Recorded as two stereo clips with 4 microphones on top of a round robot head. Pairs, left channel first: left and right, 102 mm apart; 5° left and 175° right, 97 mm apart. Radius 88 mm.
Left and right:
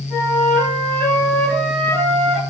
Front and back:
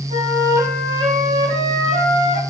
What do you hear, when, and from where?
0.1 s a flute: 170° left, 4 m